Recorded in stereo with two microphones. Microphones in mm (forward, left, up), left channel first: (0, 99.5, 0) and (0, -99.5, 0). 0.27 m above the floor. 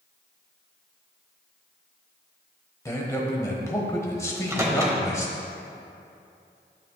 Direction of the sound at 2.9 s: 15° left (ahead or behind).